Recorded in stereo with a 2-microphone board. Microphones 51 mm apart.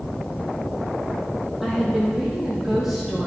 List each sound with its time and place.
1.6 s a woman speaking: 5° right (ahead or behind), 5.5 m